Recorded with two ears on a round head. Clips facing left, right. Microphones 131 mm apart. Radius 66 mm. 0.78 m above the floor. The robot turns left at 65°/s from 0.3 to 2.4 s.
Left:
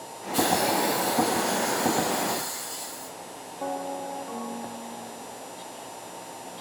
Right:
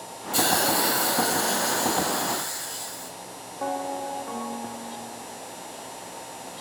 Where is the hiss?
55° right, 4.5 m; by 3.1 s 170° left, 4.5 m.